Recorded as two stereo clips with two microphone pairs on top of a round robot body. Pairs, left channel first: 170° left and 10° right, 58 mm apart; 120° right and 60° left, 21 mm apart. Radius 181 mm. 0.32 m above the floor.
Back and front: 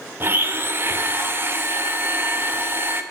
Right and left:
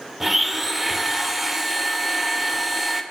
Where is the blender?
15° right, 2 m.